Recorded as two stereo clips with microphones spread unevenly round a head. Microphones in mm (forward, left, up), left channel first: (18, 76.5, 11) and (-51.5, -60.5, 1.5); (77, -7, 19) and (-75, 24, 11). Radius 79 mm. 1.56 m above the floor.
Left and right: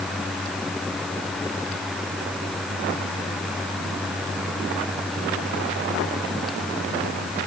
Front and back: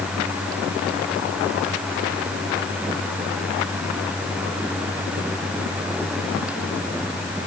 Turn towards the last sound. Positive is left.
No sound to turn to.